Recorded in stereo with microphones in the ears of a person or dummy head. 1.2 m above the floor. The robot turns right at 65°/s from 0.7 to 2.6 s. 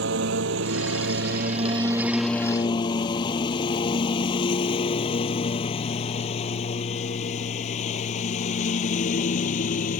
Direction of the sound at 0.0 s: 75° right (ahead or behind).